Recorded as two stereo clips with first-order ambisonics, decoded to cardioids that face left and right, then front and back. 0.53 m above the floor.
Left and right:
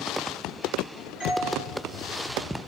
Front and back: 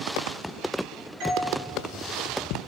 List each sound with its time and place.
1.2 s a doorbell: 150° left, 7.5 m